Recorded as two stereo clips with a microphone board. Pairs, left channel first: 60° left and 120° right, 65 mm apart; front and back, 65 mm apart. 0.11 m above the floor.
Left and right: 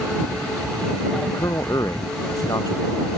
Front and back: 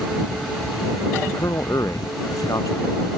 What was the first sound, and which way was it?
A man speaking, 30° left.